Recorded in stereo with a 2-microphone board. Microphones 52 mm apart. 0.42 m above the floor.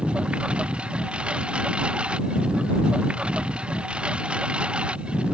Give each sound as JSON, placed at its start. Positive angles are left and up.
{"t": 0.0, "sound": "a lawn mower", "side_deg": -20}